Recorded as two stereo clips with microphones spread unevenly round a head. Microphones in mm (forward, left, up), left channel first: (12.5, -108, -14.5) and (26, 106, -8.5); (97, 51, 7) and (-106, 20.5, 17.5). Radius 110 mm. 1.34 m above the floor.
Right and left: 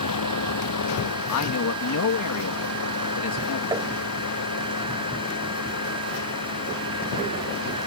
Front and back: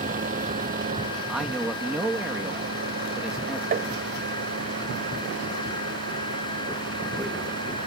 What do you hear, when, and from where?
0.0 s a vehicle: 110° right; by 7.9 s 130° right
1.3 s a man speaking: 85° right
3.7 s tapping: 155° left